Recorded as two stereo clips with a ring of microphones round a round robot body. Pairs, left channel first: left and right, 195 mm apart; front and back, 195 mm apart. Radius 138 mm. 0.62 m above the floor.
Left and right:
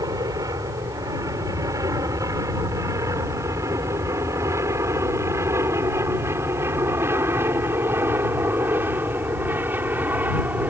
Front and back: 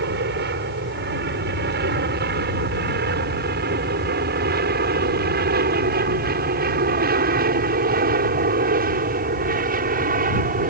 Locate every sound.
0.0 s an aircraft: 165° right; by 10.7 s 170° right